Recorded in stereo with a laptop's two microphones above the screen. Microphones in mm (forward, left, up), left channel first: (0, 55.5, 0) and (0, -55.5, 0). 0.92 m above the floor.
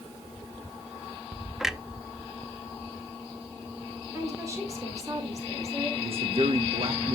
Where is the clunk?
5° right (ahead or behind), 0.6 m.